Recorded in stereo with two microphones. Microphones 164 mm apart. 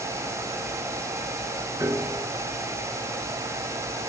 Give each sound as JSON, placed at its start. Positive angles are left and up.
{"t": 1.8, "sound": "a piano", "side_deg": -15, "distance_m": 1.8}